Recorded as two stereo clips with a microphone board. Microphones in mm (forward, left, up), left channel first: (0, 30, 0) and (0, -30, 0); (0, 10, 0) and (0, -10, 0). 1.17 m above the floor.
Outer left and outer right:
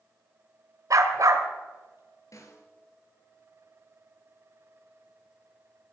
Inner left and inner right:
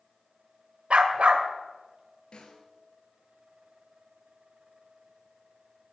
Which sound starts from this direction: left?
A snare drum, at 2.3 s.